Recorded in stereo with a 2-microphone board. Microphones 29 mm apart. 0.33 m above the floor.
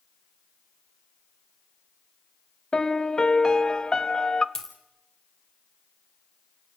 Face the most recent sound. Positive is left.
turn(degrees=15)  # may be behind; listen again after turning